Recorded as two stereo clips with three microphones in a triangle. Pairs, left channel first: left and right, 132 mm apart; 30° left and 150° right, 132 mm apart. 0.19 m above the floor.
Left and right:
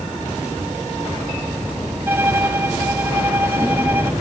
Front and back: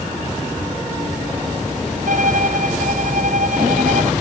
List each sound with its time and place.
2.1 s a violin: 165° right